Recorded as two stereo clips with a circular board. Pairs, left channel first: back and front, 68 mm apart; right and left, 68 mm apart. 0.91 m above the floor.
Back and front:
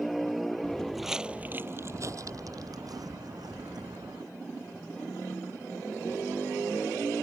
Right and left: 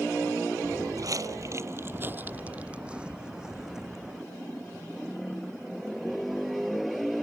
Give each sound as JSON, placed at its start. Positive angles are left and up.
{"t": 0.6, "sound": "footsteps", "azimuth_deg": 105}